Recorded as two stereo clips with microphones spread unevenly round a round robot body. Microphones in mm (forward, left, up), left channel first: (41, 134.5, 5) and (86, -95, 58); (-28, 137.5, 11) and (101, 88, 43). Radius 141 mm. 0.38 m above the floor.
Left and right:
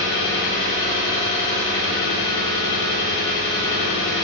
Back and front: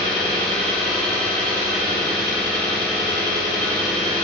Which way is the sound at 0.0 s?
85° left.